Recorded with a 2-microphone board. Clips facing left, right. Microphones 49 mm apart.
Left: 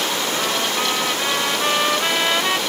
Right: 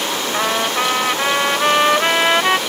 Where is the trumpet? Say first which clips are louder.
Right 3 dB; 30° right (ahead or behind).